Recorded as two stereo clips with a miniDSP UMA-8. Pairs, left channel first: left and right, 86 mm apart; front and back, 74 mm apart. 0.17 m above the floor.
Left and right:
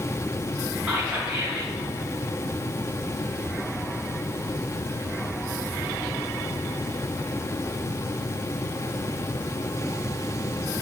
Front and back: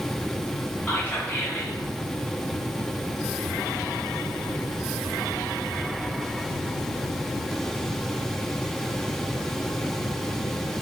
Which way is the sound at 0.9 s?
30° right.